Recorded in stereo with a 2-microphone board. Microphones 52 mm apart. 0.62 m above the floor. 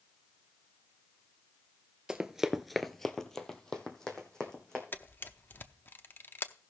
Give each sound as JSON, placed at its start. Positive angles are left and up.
{"t": 2.1, "sound": "running footsteps", "side_deg": -15, "distance_m": 0.8}
{"t": 4.9, "sound": "a camera shutter", "side_deg": 40, "distance_m": 0.6}